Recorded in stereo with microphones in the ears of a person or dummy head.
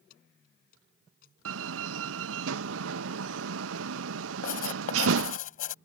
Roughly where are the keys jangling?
Left.